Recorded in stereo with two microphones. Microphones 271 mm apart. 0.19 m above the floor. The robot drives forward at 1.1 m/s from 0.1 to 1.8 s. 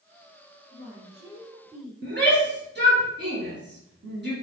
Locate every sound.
0.7 s a woman speaking: 50° right (ahead or behind), 3 m; by 1.9 s 60° right (ahead or behind), 2.5 m
2.0 s a shout: 40° right (ahead or behind), 3 m